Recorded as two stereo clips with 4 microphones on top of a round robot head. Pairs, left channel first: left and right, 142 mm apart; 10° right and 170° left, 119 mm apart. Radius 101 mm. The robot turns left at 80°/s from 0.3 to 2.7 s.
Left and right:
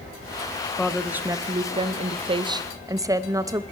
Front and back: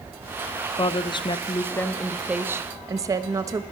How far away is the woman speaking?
About 0.8 m.